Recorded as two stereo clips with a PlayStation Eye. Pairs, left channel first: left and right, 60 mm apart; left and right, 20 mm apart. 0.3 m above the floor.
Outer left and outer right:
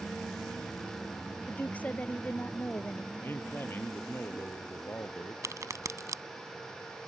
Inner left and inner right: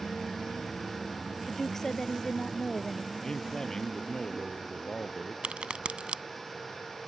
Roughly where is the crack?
Right.